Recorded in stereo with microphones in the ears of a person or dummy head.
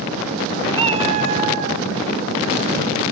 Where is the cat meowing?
30° right (ahead or behind), 2.0 m; by 1.8 s 50° right (ahead or behind), 2.0 m.